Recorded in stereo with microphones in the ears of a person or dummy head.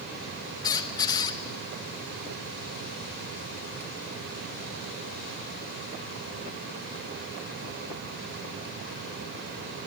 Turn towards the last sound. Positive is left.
turn(degrees=15)  # may be behind; listen again after turning